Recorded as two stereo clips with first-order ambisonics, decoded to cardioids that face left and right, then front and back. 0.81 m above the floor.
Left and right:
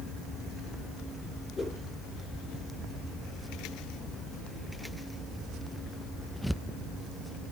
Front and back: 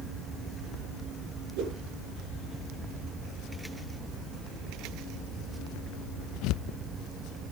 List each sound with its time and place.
1.6 s a whoosh: 170° left, 7 m